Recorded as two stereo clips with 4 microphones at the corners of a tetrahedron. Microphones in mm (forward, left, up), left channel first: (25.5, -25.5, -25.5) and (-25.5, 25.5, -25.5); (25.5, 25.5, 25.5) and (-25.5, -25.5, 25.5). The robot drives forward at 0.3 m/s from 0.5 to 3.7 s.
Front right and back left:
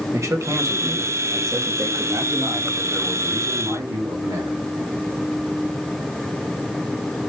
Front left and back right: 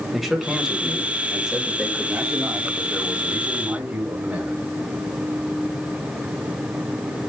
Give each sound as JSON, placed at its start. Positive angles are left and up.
{"t": 0.1, "sound": "a man speaking", "azimuth_deg": 140, "distance_m": 1.6}